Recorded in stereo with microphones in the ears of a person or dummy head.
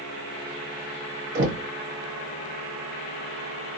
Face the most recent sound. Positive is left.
turn(degrees=-65)  # may be behind; listen again after turning